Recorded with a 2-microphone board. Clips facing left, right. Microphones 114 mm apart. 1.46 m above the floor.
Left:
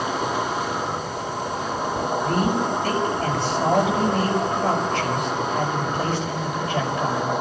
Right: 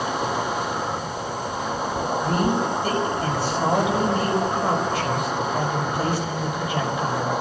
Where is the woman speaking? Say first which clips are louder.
Even; 10° right (ahead or behind), 6 m.